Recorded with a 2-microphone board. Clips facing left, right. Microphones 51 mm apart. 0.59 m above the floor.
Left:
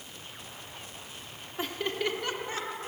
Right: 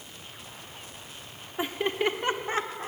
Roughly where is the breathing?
I don't hear breathing.